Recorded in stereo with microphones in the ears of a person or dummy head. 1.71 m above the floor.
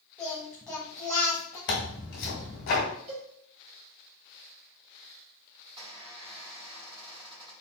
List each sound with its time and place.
0.2 s singing: 5° left (ahead or behind), 1.1 m
1.7 s tearing paper: 55° left (ahead or behind), 1.6 m
3.1 s a cowbell: 35° right (ahead or behind), 1.9 m
5.8 s a squeak: 30° right (ahead or behind), 1.7 m